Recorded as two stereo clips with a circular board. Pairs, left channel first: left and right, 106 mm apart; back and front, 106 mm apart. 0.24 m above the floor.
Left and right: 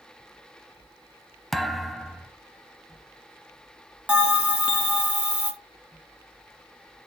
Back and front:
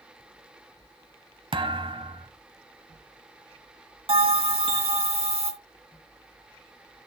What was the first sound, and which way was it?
A thud, straight ahead.